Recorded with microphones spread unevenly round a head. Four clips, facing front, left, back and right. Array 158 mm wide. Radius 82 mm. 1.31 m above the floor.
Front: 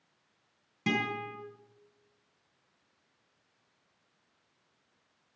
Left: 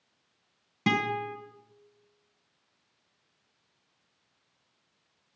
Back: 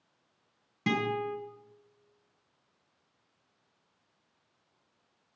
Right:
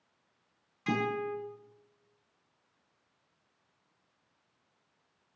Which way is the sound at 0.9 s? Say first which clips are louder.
Left 3 dB, back 3 dB; 110° left.